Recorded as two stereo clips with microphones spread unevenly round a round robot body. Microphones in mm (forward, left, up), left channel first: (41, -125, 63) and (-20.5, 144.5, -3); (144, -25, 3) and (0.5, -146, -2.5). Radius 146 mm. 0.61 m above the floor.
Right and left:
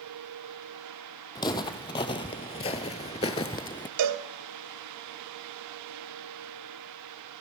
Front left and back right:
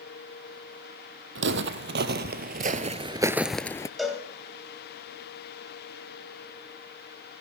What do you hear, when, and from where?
1.4 s footsteps: 145° right, 1.3 m; by 3.9 s 20° right, 0.7 m
4.0 s a cowbell: 130° left, 1.3 m